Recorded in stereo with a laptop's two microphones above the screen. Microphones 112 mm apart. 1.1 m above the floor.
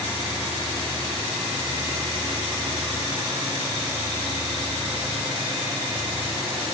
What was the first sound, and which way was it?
Only background noise.